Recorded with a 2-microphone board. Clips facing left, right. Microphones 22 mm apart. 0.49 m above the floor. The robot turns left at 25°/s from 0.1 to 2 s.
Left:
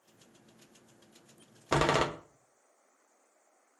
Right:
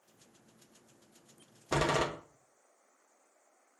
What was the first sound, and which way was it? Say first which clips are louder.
A door slam: left 3 dB; 40° left (ahead or behind).